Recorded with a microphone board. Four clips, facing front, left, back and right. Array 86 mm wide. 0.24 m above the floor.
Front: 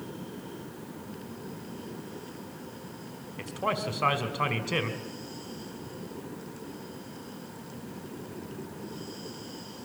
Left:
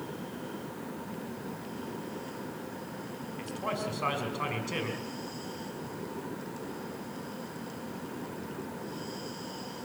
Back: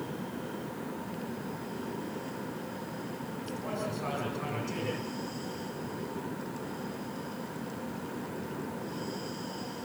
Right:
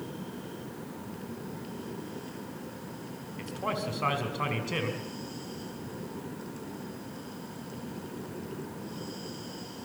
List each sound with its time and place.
3.4 s a man speaking: 10° right, 2 m